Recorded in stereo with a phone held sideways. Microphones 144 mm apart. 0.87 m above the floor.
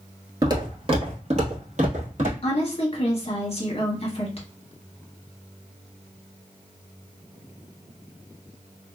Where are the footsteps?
25° right (ahead or behind), 0.9 m; by 2.3 s 60° right (ahead or behind), 1.7 m.